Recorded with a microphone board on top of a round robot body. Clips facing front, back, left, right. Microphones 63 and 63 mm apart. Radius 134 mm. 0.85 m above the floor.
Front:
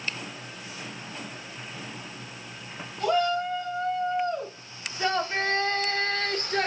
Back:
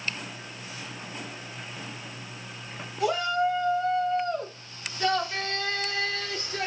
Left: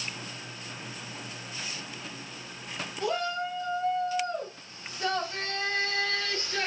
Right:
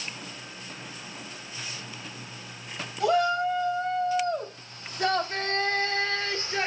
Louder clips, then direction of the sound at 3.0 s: Even, right 7 dB; 95° right.